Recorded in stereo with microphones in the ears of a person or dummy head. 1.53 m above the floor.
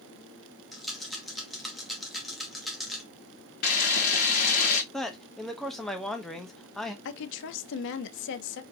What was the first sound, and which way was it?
A rattle, centre (ahead or behind).